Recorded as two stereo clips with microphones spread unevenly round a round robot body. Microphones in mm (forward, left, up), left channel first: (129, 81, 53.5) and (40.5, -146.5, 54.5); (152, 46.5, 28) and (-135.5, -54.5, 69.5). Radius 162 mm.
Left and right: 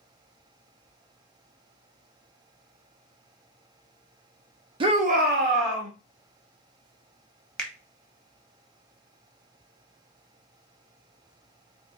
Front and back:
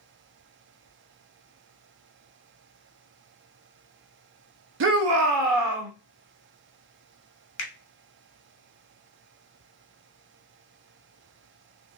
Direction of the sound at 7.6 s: 15° right.